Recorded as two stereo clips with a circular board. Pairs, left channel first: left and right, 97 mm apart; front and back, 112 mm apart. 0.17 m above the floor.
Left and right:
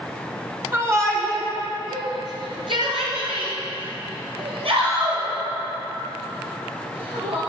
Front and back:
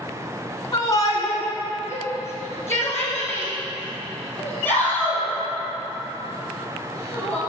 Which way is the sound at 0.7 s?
35° right.